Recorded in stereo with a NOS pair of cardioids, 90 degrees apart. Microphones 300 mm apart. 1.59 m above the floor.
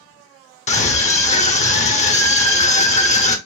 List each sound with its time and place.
0.7 s a scream: 25° left, 0.9 m